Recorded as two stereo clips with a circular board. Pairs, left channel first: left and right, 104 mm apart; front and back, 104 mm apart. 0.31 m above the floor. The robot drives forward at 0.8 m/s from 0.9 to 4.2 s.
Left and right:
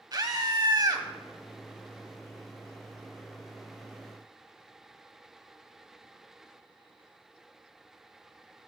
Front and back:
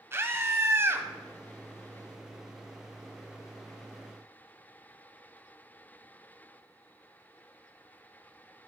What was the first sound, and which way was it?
A scream, 125° right.